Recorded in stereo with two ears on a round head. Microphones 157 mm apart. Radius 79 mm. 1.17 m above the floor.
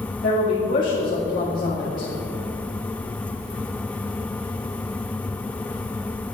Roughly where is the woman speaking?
Left.